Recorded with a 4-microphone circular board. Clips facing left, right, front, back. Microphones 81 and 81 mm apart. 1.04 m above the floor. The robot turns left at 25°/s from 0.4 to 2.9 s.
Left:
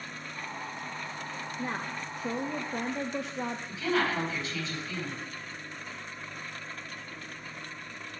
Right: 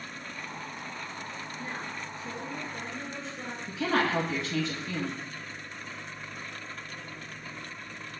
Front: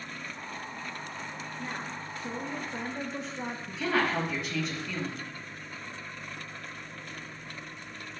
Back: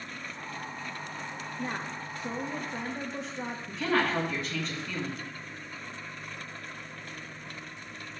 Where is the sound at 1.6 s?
125° left, 0.5 m; by 3.6 s 90° left, 0.5 m.